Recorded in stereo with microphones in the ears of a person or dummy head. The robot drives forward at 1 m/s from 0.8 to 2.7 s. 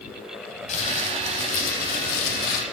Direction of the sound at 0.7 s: 40° left (ahead or behind).